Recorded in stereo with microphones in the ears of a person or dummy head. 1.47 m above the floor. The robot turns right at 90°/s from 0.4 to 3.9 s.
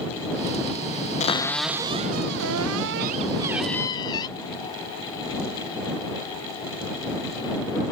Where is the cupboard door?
145° left; by 4.3 s 25° left.